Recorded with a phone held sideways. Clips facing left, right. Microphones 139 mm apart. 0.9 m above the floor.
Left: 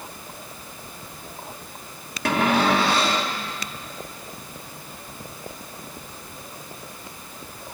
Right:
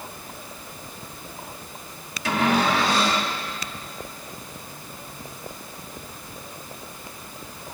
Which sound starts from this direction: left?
A cupboard door, at 2.2 s.